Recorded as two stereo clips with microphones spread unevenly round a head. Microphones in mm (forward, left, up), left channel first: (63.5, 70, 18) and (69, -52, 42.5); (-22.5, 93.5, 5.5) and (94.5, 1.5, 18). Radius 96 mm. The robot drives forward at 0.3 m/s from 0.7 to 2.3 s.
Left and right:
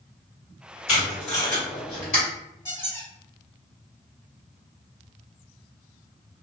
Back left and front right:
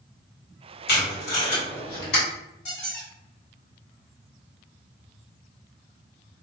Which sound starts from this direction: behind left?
Tape being pulled, at 0.9 s.